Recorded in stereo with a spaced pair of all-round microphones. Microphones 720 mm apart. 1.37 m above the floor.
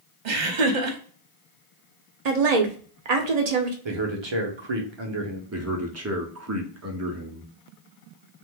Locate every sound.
0.2 s laughter: 80° right, 0.9 m
2.2 s a woman speaking: 65° right (ahead or behind), 0.8 m
3.9 s a man speaking: 40° right (ahead or behind), 0.7 m
5.5 s a man speaking: 25° right (ahead or behind), 0.6 m